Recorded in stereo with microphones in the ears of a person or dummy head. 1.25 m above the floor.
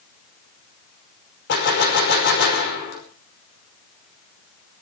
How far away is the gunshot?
About 5.5 m.